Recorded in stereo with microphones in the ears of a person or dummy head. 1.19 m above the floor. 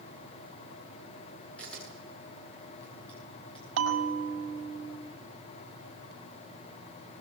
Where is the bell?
80° right, 5.5 m.